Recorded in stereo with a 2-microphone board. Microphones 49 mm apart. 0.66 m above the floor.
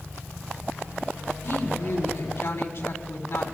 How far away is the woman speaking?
About 5.5 m.